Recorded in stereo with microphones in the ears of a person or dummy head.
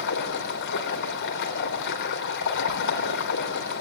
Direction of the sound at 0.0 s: 65° left (ahead or behind).